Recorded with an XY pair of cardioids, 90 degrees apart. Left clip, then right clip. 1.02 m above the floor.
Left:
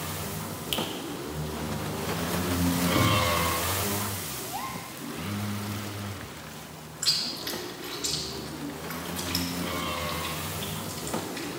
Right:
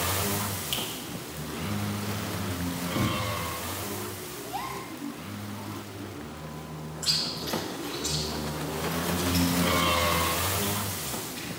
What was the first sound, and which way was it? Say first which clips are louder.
A finger snap: left 3 dB; 20° left.